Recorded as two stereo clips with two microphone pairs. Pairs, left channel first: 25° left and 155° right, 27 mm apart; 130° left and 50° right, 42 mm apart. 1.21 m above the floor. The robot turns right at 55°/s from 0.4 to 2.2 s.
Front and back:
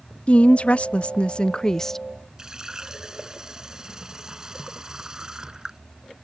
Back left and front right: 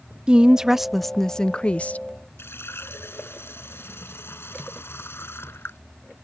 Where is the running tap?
135° left.